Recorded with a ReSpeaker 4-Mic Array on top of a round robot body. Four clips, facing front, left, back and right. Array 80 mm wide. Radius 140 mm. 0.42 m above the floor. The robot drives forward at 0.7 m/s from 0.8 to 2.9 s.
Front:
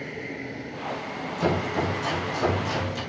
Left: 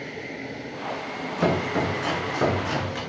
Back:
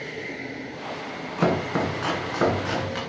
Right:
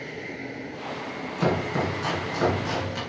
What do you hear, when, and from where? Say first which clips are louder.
1.4 s chopping: left 2 dB, back 2 dB; straight behind, 2.5 m